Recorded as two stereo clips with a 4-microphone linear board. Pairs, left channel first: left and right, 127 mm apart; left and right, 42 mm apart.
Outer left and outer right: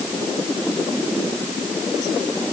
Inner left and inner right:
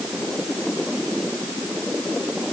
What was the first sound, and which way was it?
Only background noise.